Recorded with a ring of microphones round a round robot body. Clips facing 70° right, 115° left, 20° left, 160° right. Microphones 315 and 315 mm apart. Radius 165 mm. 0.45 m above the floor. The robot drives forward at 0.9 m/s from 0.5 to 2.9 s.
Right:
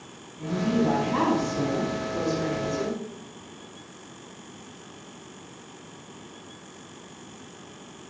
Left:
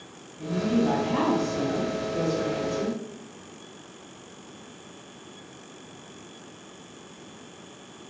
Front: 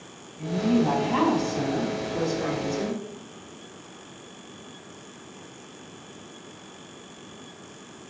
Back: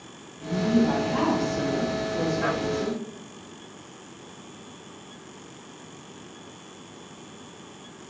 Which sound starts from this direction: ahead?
A woman speaking, at 0.4 s.